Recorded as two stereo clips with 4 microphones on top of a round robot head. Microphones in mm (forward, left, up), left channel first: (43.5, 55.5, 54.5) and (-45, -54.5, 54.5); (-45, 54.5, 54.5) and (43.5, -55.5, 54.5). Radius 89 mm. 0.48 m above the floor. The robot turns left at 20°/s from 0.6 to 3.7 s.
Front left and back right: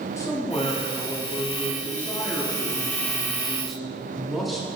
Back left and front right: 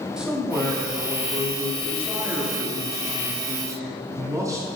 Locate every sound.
0.2 s a man speaking: 25° left, 1.0 m; by 4.7 s 40° right, 1.0 m